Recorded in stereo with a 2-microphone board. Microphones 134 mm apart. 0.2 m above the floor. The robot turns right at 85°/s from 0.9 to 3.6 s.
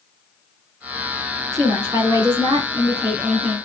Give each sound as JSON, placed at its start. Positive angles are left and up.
{"t": 1.5, "sound": "a woman speaking", "azimuth_deg": -145, "distance_m": 1.9}